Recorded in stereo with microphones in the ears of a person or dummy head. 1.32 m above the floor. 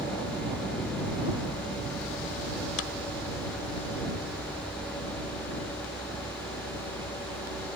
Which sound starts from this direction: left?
A clap, at 2.8 s.